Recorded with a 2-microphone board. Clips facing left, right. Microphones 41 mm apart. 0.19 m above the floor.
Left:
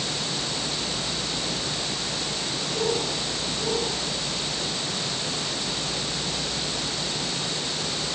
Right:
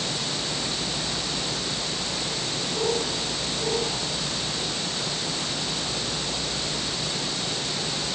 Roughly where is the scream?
No scream in this recording.